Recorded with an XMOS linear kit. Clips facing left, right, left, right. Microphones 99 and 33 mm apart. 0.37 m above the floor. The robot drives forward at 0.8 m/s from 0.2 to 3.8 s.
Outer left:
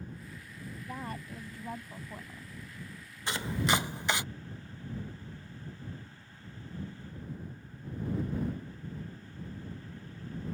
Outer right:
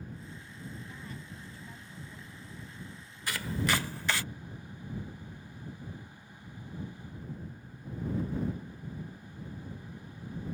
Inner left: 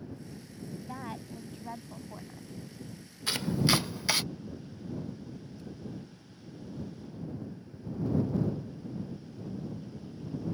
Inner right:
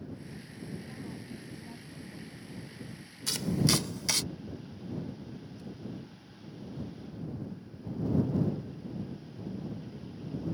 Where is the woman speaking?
60° left (ahead or behind); by 2.5 s 45° left (ahead or behind).